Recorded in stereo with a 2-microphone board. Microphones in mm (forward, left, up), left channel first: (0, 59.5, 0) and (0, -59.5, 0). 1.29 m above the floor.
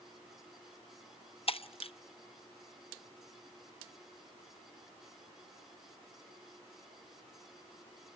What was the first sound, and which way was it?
Breaking glass, 55° left (ahead or behind).